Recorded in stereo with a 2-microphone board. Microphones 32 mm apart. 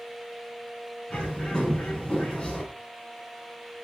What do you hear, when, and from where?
1.1 s a bird: 25° left (ahead or behind), 5.5 m